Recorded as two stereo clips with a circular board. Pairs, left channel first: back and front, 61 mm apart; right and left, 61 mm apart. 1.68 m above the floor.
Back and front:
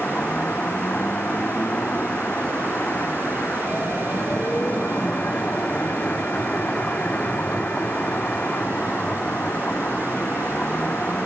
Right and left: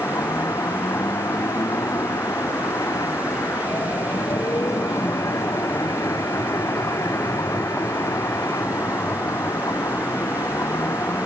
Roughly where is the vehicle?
Behind right.